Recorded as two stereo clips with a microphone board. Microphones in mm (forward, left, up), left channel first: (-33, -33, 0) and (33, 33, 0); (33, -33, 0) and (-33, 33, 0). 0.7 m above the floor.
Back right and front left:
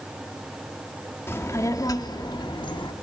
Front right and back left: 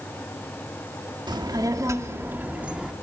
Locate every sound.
1.3 s a child speaking: 165° left, 1.1 m; by 2.9 s 145° right, 1.2 m